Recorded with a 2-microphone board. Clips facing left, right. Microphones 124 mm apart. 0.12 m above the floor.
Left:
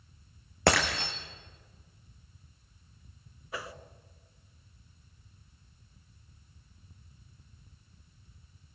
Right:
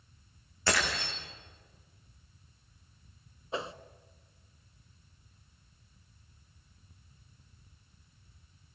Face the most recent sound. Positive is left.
turn(degrees=-25)  # may be behind; listen again after turning